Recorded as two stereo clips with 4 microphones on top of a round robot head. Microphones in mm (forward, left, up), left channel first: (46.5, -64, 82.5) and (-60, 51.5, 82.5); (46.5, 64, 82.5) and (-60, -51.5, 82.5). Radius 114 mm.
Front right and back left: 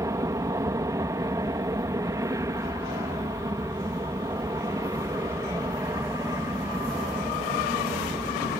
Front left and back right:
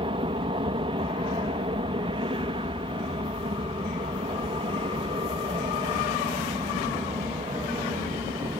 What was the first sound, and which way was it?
An aircraft, 170° right.